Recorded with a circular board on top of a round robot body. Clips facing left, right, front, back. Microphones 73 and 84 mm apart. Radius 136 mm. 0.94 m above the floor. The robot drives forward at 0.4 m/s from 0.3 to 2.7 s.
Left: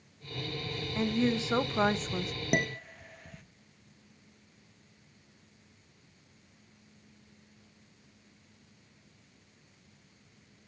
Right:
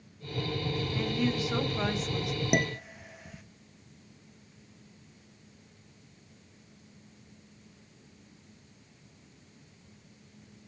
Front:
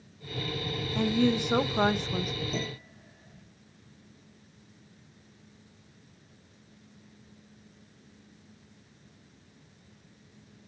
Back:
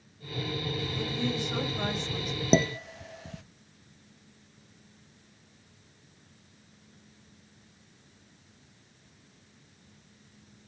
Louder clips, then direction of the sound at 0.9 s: Left 3 dB, front 9 dB; 25° left.